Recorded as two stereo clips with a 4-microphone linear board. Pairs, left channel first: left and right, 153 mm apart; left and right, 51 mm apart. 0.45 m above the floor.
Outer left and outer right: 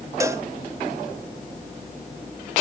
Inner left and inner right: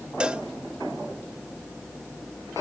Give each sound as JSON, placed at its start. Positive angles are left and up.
{"t": 0.2, "sound": "a cowbell", "side_deg": -20, "distance_m": 0.6}